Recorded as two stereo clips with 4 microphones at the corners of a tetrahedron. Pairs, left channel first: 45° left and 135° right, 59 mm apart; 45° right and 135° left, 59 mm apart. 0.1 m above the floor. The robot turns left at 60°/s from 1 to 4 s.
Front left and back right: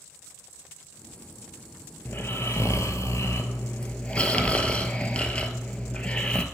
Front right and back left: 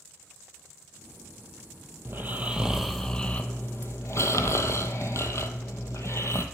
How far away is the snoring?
About 1.0 m.